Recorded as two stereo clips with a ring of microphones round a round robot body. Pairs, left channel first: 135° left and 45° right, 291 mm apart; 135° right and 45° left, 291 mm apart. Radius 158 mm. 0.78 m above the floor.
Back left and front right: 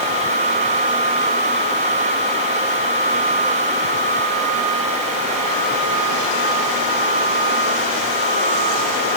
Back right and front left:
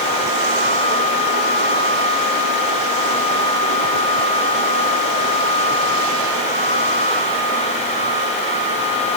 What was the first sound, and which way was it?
Only background noise.